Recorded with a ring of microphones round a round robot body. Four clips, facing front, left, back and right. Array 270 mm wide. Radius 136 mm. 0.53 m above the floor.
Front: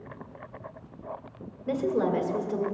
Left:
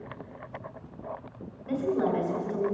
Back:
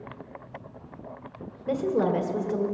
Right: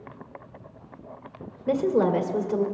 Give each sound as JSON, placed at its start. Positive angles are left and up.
{"t": 1.7, "sound": "a woman speaking", "azimuth_deg": -85, "distance_m": 1.6}